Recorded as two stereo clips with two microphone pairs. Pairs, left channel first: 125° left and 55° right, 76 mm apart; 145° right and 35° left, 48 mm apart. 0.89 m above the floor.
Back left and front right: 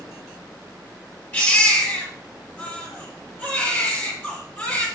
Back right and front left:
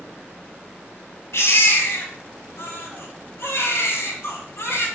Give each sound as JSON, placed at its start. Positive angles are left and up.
{"t": 1.3, "sound": "a baby crying", "azimuth_deg": -170, "distance_m": 6.0}